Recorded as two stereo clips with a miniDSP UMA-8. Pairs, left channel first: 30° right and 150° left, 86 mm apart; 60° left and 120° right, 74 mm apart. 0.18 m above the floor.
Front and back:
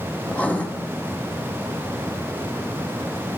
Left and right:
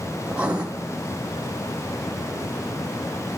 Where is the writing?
75° right, 1.2 m.